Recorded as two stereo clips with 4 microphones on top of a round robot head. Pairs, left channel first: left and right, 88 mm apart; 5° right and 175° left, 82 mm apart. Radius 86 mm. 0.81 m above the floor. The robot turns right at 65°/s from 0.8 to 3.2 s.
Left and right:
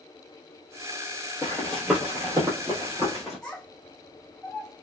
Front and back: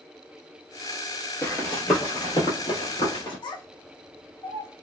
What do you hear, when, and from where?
1.4 s running footsteps: 35° left, 0.8 m; by 3.4 s 5° left, 1.2 m
3.4 s a child speaking: 5° left, 0.9 m